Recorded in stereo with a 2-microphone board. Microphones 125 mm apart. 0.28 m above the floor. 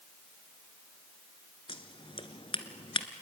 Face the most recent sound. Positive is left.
turn(degrees=45)  # may be behind; listen again after turning